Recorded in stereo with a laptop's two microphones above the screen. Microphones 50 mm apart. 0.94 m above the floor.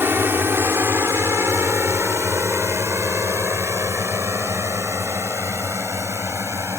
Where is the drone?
50° right (ahead or behind); by 6.8 s 75° right (ahead or behind).